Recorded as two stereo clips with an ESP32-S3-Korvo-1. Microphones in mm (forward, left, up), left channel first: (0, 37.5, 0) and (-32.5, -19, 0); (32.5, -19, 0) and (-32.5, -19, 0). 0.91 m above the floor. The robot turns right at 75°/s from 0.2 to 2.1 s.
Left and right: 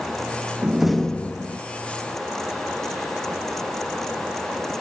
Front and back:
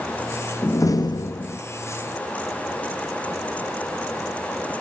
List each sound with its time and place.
0.6 s a door slam: 50° right, 0.8 m; by 1.6 s 25° left, 0.8 m